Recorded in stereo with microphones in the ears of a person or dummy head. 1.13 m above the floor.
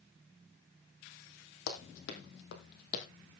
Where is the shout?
No shout in this recording.